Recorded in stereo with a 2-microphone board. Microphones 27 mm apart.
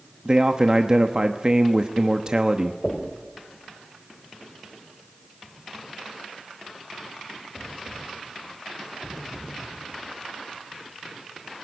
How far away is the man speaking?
About 0.9 m.